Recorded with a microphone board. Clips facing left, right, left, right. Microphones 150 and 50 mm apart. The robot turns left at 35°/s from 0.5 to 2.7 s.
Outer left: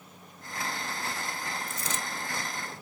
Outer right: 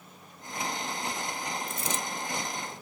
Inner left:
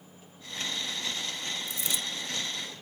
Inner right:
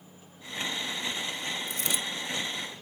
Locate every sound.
1.7 s a dropped coin: 55° right (ahead or behind), 0.8 m